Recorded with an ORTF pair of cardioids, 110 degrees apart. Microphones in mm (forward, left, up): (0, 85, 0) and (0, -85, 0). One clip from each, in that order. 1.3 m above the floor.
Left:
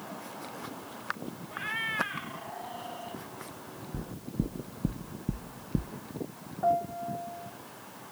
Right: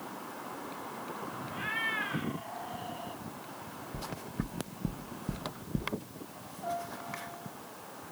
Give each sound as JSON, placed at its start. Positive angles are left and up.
{"t": 1.5, "sound": "a cat meowing", "azimuth_deg": 10, "distance_m": 1.6}
{"t": 3.9, "sound": "knocking", "azimuth_deg": 20, "distance_m": 0.7}
{"t": 6.6, "sound": "a piano", "azimuth_deg": 70, "distance_m": 3.0}